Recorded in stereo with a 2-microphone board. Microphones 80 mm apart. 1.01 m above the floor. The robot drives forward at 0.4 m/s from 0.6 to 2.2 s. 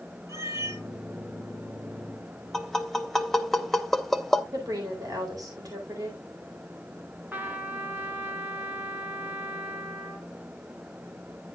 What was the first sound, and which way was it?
A cat meowing, 40° right (ahead or behind).